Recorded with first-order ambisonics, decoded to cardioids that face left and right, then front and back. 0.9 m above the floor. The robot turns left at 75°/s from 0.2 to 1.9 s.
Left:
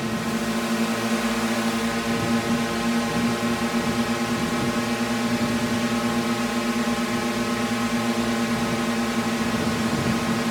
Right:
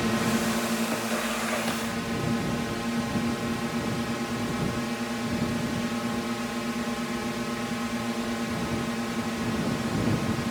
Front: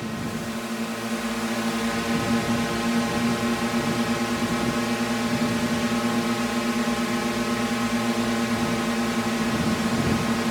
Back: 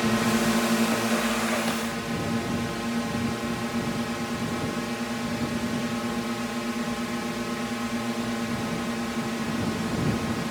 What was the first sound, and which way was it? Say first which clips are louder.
A drone: even, back 7 dB; 175° right.